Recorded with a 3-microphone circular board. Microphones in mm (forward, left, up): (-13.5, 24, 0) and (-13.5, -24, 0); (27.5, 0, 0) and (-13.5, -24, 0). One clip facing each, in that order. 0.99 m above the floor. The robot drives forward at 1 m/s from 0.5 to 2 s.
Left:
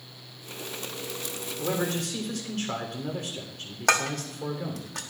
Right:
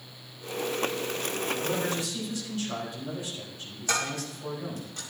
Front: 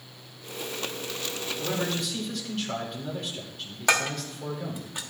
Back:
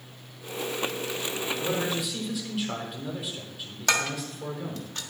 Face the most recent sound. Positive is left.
turn(degrees=105)